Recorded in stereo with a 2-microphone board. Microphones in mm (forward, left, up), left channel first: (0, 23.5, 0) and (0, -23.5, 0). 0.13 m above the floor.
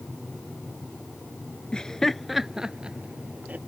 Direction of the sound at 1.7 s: 20° left (ahead or behind).